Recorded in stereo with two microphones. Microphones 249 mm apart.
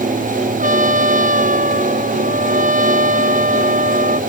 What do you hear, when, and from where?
0.6 s a trumpet: 30° right (ahead or behind)